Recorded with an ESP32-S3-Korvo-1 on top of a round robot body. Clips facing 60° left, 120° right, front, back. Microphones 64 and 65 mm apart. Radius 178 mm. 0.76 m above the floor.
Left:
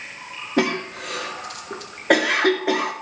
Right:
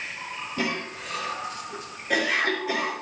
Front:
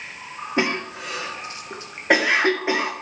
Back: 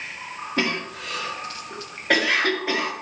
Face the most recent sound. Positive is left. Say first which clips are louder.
# left 8 dB, front 2 dB
turn(degrees=65)